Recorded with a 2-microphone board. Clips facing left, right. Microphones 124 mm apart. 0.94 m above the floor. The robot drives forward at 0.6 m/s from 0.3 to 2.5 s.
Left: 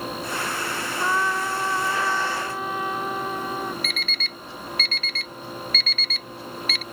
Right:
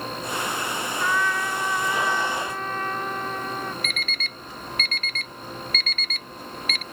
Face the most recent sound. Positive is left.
turn(degrees=-45)  # may be behind; listen again after turning